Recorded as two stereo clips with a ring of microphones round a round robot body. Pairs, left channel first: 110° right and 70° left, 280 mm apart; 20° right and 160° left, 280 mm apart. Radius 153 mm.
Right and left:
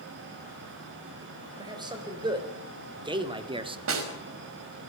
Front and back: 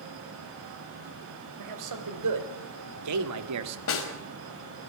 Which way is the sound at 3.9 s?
20° left.